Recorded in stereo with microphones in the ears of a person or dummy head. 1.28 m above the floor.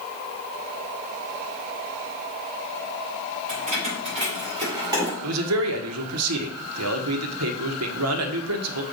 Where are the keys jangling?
40° right (ahead or behind), 4 m; by 5.1 s 15° right (ahead or behind), 3 m.